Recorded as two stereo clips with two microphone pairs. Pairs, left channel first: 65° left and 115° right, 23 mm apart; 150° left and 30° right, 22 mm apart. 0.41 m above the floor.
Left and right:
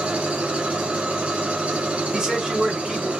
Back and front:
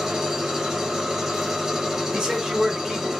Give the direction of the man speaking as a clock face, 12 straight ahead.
2 o'clock.